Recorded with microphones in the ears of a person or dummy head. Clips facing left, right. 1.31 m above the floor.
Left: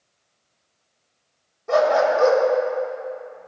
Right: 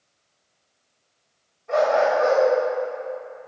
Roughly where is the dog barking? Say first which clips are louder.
Left 2 dB; left.